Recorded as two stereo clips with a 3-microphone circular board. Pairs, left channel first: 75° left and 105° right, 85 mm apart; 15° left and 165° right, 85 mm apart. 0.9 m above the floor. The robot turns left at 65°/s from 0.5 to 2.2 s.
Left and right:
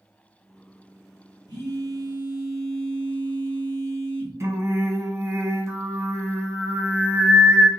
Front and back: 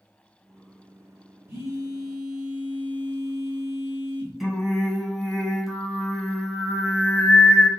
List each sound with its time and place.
1.5 s a phone buzzing: 115° right, 3 m; by 4.3 s 160° right, 3 m
4.4 s singing: 75° right, 0.9 m